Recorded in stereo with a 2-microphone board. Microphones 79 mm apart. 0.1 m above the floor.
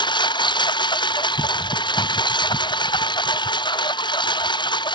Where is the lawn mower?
75° left (ahead or behind).